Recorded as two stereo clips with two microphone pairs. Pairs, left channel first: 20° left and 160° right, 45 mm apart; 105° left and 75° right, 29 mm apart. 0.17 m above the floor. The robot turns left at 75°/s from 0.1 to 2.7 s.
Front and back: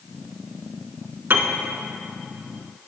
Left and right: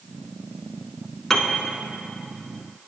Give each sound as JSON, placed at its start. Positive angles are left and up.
{"t": 1.3, "sound": "a piano", "azimuth_deg": -175, "distance_m": 0.7}